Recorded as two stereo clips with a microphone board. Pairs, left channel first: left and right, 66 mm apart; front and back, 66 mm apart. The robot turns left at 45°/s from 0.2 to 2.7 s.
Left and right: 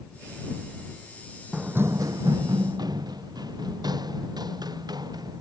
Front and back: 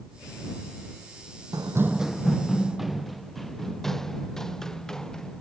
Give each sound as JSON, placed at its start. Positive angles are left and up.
{"t": 1.5, "sound": "running footsteps", "azimuth_deg": -165}